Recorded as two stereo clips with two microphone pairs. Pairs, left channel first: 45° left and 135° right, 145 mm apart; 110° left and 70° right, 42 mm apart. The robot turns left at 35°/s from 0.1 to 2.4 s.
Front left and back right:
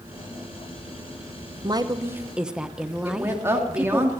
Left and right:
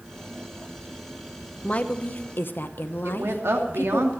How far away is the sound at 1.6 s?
About 1.0 m.